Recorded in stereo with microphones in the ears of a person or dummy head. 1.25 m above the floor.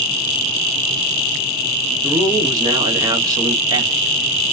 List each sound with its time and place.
2.0 s a man speaking: 25° right (ahead or behind), 1.0 m